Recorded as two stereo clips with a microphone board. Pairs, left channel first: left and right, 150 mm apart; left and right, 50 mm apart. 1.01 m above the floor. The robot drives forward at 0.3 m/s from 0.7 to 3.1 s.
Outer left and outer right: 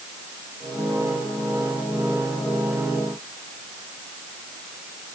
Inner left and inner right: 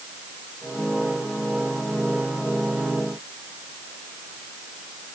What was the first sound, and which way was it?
Only background noise.